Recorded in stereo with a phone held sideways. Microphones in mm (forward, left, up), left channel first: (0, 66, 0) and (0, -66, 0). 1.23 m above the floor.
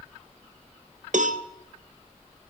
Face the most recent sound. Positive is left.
turn(degrees=-70)  # may be behind; listen again after turning